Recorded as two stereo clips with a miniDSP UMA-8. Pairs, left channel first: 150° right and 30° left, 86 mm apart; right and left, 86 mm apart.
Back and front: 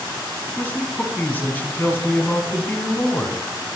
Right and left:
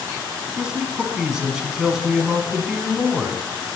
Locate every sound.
0.5 s a man speaking: 165° left, 1.5 m